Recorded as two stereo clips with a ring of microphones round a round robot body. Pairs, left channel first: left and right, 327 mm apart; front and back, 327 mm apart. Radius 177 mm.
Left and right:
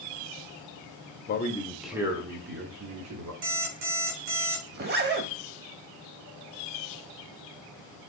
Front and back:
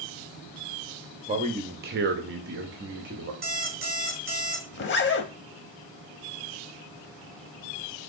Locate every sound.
1.3 s a man speaking: 120° left, 0.6 m; by 3.3 s 125° right, 1.0 m
3.4 s an alarm clock: 120° right, 3 m
4.7 s a zipper: 40° right, 0.6 m